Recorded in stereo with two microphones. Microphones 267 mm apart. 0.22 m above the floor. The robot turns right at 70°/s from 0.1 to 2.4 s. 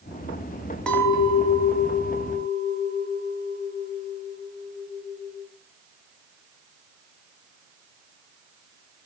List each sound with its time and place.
0.9 s a clink: 5° left, 1.2 m; by 5.5 s 115° left, 1.2 m